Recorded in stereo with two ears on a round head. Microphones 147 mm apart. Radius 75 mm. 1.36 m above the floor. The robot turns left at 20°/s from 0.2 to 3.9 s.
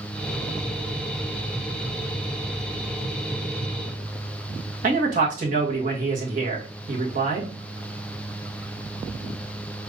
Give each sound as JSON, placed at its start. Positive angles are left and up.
{"t": 4.8, "sound": "a man speaking", "side_deg": -50, "distance_m": 1.8}